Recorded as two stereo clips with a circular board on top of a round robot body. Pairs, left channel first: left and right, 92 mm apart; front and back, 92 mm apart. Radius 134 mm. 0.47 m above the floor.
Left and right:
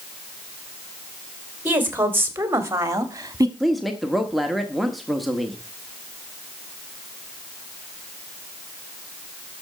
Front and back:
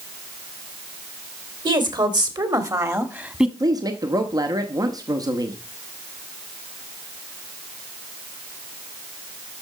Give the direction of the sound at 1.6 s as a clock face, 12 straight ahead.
5 o'clock.